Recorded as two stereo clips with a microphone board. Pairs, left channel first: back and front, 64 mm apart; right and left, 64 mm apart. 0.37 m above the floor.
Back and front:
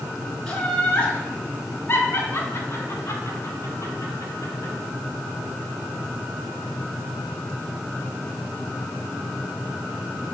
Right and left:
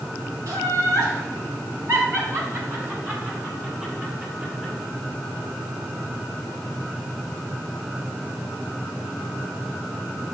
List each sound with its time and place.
0.5 s laughter: 105° left, 3 m; by 4.7 s 155° left, 4.5 m